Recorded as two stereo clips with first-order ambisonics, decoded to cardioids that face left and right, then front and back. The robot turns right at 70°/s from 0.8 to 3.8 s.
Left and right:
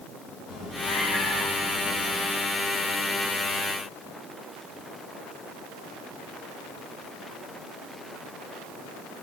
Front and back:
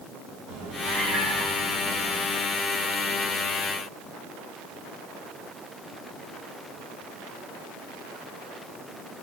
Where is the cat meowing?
160° left, 3.5 m; by 2.2 s 105° right, 3.5 m.